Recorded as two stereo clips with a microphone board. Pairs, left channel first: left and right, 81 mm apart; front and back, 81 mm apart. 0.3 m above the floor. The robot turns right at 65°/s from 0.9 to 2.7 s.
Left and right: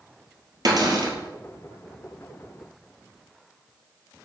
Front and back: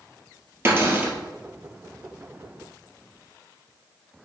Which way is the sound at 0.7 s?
120° right.